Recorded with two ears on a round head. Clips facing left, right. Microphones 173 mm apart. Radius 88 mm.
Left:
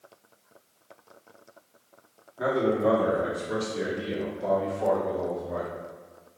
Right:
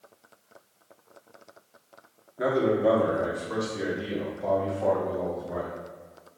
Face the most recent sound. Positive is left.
turn(degrees=60)  # may be behind; listen again after turning